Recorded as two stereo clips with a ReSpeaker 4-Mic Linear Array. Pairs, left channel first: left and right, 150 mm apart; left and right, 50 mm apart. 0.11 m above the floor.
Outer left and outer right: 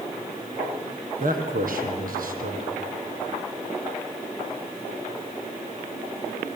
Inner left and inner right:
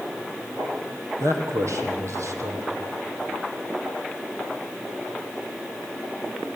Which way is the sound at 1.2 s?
70° right (ahead or behind).